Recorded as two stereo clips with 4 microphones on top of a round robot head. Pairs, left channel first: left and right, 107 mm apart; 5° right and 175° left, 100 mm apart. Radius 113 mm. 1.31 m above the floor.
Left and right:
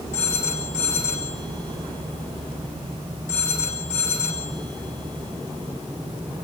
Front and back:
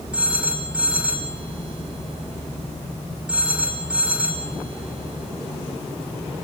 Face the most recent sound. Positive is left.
turn(degrees=95)